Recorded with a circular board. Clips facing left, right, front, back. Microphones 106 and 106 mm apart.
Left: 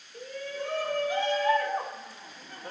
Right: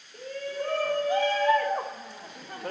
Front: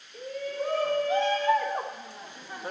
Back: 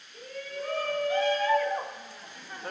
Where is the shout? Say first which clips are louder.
Right 3 dB, front 5 dB; 55° right, 4.5 m; by 2.7 s 85° right, 0.9 m.